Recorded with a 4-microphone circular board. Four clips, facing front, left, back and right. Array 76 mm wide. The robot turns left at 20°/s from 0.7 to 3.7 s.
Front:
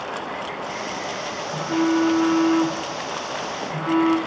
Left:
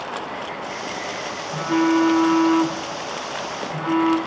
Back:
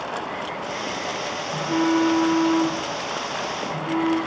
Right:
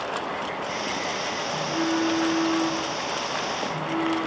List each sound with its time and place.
1.5 s a phone buzzing: 100° left, 3.5 m; by 4.2 s 55° left, 3.5 m